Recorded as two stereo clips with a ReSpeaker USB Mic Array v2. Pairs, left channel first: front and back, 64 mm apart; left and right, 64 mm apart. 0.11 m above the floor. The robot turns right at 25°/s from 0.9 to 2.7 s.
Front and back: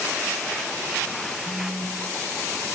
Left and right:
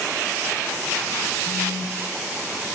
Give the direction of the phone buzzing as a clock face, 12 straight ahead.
3 o'clock.